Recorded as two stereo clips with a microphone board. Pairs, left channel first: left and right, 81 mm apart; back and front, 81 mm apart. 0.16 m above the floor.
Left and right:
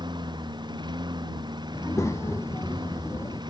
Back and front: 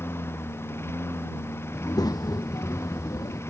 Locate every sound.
0.0 s a lawn mower: 120° right
1.7 s a child speaking: 145° left